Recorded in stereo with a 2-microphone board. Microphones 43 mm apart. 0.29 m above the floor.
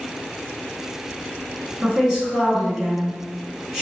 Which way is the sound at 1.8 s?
20° right (ahead or behind).